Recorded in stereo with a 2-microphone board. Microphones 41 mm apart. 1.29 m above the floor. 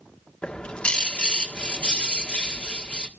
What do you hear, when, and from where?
0.4 s a bird: 25° left (ahead or behind), 1.6 m